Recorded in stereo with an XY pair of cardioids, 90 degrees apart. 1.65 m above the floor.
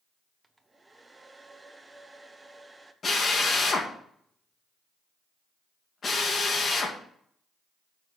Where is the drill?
45° left, 2.5 m.